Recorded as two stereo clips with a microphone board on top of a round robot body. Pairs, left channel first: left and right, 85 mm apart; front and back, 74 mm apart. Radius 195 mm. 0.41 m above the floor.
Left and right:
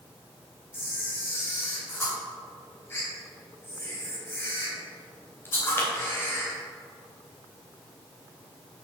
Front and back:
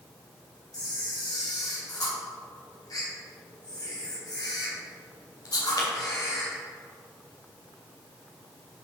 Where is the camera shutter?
30° left, 2.5 m.